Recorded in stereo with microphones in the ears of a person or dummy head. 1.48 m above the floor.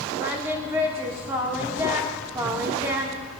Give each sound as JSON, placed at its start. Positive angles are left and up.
{"t": 0.2, "sound": "singing", "side_deg": -15, "distance_m": 1.7}